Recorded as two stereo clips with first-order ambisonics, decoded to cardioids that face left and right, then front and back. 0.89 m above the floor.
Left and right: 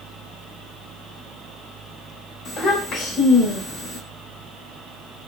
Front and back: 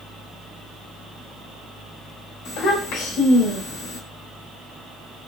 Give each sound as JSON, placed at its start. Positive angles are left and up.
{"t": 2.5, "sound": "a child speaking", "azimuth_deg": 30, "distance_m": 1.8}